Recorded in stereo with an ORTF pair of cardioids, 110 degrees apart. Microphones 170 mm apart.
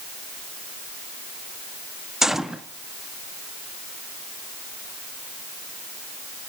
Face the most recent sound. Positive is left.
turn(degrees=0)